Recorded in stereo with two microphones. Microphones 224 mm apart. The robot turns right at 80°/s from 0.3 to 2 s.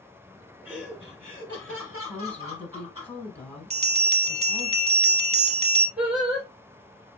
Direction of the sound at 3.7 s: 25° right (ahead or behind).